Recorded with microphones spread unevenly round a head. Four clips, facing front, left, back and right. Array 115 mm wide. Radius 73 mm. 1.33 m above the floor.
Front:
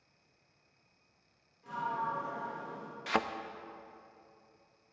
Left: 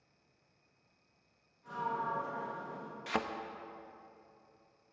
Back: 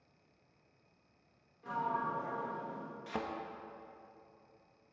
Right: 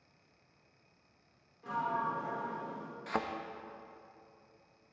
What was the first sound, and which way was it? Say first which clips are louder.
A sliding door: right 2 dB, even; 115° right.